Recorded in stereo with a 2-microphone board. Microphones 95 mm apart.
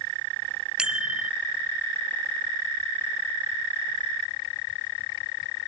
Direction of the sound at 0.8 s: 10° right (ahead or behind).